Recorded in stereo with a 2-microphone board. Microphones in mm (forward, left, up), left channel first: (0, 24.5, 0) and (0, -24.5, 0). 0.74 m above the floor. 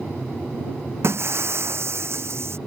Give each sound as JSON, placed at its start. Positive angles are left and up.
{"t": 1.0, "sound": "breaking glass", "side_deg": -60}